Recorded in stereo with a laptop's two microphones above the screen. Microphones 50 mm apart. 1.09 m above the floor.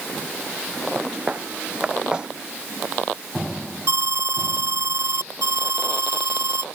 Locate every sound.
0.9 s footsteps: 25° right (ahead or behind); by 2.3 s 15° right (ahead or behind)
3.9 s an alarm: 80° right